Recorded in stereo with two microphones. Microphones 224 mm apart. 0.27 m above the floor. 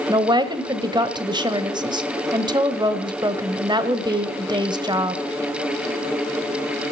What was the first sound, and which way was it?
A woman speaking, 20° right (ahead or behind).